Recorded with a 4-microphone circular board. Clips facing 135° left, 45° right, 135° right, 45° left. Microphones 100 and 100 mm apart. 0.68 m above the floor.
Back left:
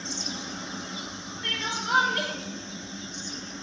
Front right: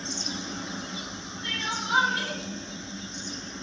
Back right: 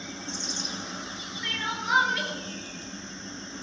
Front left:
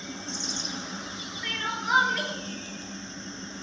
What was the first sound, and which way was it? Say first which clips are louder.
Crying: back left 1 dB, even; 130° left.